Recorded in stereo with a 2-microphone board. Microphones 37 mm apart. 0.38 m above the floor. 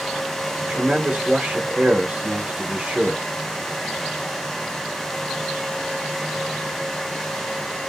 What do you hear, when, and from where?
0.6 s a man speaking: 30° right (ahead or behind), 1.0 m